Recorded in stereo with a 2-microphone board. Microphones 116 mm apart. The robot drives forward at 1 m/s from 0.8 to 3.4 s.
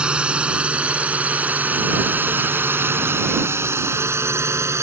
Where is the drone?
10° right (ahead or behind); by 4.8 s 20° right (ahead or behind).